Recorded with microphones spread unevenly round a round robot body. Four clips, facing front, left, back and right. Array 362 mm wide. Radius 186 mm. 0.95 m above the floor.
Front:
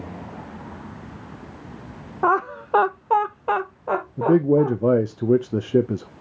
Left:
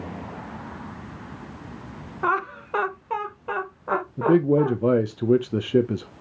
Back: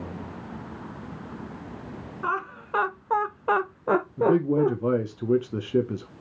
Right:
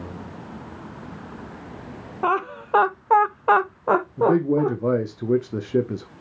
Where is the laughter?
10° right, 1.2 m; by 4.7 s 165° right, 1.1 m.